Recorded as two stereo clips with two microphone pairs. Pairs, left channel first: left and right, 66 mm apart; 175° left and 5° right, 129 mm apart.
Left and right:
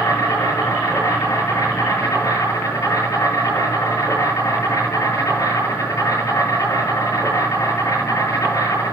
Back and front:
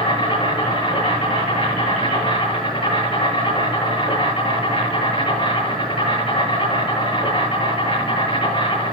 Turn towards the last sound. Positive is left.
turn(degrees=125)